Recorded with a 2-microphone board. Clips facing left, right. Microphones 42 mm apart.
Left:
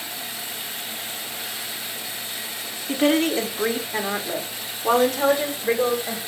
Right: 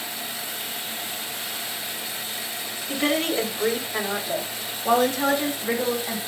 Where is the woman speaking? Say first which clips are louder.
Left 4 dB; 40° left (ahead or behind), 1.6 m; by 6.2 s 45° left (ahead or behind), 3 m.